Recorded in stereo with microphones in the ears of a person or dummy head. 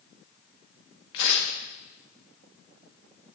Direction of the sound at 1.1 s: 60° left (ahead or behind).